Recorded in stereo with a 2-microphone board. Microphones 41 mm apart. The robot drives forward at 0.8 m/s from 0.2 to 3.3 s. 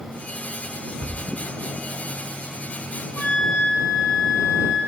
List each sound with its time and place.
1.0 s a thud: centre (ahead or behind), 1.1 m
3.2 s a flute: 45° left (ahead or behind), 0.8 m